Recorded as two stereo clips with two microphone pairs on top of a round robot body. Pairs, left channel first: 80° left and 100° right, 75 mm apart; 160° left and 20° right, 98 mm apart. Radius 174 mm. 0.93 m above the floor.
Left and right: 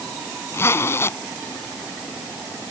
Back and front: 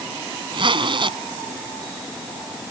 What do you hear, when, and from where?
0.5 s a zipper: 20° left